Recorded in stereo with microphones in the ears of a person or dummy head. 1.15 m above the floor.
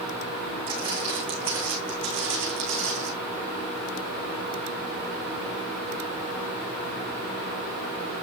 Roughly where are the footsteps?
Right.